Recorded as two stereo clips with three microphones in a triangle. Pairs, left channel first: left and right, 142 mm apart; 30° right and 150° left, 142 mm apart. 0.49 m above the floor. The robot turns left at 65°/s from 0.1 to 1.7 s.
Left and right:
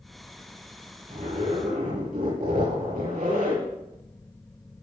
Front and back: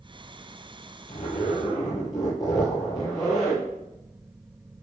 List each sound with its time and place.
1.1 s a zipper: 50° right, 8 m; by 3.6 s 90° right, 8 m